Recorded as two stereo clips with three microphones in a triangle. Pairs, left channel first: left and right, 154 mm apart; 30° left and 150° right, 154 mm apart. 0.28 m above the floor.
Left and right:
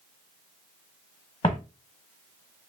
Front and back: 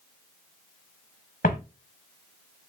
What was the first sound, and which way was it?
Footsteps, 35° left.